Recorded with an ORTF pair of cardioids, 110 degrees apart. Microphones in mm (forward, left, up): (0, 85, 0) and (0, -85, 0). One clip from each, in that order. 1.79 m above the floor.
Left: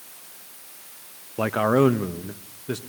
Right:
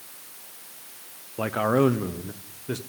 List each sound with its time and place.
1.4 s a man speaking: 15° left, 0.9 m; by 2.8 s 5° left, 1.8 m